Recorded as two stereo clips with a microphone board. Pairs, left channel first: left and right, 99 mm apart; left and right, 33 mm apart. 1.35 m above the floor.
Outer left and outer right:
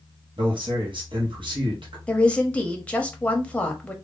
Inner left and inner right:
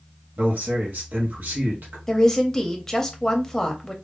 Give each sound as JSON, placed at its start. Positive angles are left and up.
{"t": 0.4, "sound": "a man speaking", "side_deg": -60, "distance_m": 0.9}
{"t": 2.1, "sound": "a woman speaking", "side_deg": 15, "distance_m": 0.8}